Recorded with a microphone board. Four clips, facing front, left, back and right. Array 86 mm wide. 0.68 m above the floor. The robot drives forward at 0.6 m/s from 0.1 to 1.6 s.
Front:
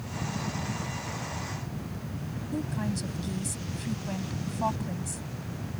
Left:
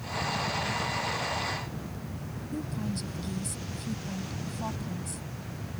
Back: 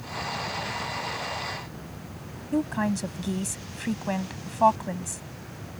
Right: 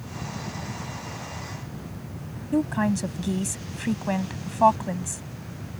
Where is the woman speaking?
120° right.